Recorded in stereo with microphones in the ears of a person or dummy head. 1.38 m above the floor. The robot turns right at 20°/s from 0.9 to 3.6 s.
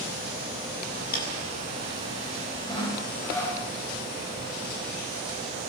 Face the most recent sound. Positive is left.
turn(degrees=5)  # may be behind; listen again after turning